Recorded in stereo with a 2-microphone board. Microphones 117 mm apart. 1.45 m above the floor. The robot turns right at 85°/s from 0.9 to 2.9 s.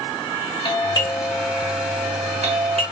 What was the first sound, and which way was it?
A doorbell, 40° left (ahead or behind).